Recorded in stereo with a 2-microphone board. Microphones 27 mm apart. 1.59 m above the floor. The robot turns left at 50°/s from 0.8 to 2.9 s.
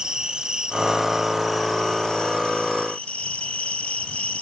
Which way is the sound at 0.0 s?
145° right.